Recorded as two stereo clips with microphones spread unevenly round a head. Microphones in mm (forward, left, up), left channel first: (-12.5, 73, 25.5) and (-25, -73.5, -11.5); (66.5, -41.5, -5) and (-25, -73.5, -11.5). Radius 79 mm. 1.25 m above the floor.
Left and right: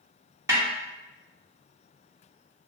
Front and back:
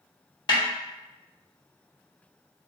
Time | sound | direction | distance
0.5 | a snare drum | 20° right | 1.8 m